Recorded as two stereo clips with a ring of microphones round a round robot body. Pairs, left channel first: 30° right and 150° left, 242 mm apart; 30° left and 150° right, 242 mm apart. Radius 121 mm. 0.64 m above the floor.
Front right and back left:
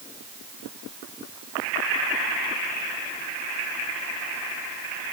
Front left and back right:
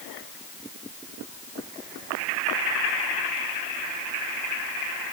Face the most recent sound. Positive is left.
No sound to turn to.